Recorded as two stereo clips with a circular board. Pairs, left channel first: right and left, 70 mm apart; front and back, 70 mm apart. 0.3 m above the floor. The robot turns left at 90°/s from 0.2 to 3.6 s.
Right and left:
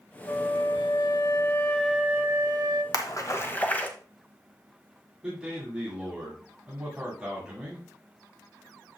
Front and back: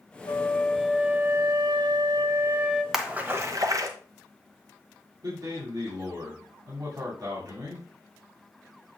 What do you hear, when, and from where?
0.3 s a flute: 40° right, 1.0 m; by 2.8 s 85° left, 1.0 m
2.9 s a splash: 95° right, 1.0 m; by 3.9 s 155° right, 1.0 m
5.2 s a man speaking: 165° left, 2.5 m